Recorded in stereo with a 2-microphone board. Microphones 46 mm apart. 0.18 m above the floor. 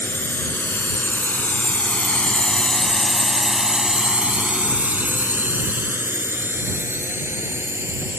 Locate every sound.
0.0 s a drone: 60° left (ahead or behind); by 8.2 s 65° right (ahead or behind)